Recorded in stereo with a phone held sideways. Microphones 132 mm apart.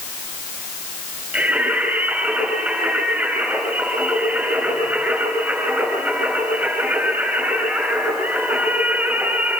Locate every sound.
1.3 s singing: 10° right (ahead or behind), 9.5 m